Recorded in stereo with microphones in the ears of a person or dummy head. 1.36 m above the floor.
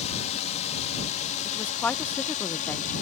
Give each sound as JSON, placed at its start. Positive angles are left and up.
{"t": 0.0, "sound": "a drone", "side_deg": 30}
{"t": 1.4, "sound": "a woman speaking", "side_deg": 15}